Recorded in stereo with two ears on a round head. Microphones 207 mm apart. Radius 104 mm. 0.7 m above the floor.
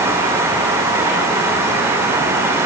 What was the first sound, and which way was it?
Only background noise.